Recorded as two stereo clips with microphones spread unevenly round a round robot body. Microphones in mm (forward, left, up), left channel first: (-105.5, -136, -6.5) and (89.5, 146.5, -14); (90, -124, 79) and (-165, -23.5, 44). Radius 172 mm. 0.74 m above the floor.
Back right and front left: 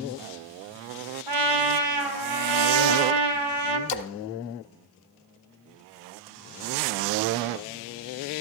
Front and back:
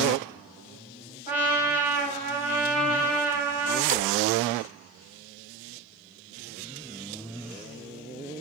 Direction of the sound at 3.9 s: 135° right.